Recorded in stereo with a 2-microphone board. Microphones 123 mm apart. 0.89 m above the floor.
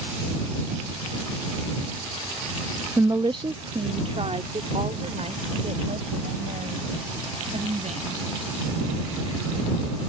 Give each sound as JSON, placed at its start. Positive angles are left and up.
{"t": 3.0, "sound": "a woman speaking", "side_deg": -20}